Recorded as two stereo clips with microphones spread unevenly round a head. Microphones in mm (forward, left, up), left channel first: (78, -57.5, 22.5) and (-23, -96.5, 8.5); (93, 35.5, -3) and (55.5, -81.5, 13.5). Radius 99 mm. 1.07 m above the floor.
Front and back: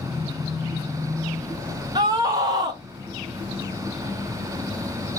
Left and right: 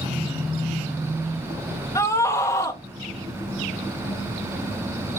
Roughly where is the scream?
Behind left.